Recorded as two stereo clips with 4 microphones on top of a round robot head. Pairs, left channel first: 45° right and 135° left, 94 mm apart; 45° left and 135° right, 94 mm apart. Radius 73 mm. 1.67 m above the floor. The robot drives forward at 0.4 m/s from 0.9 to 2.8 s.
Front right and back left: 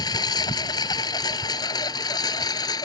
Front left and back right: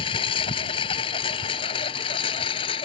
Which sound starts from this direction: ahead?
A lawn mower, at 0.0 s.